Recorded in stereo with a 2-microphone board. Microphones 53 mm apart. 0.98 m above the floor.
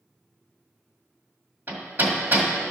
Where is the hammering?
40° right (ahead or behind), 1.9 m.